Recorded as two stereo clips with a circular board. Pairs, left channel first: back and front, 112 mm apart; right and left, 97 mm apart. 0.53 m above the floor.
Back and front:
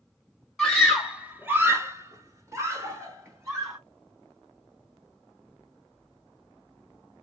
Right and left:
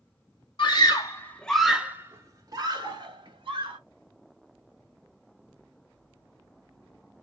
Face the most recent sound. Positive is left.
turn(degrees=60)